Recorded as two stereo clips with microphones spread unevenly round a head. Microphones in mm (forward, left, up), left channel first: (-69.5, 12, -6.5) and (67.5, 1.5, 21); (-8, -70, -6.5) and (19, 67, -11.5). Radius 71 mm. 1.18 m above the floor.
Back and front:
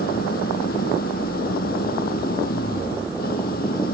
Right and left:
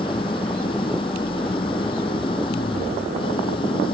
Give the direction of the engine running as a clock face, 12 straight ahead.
5 o'clock.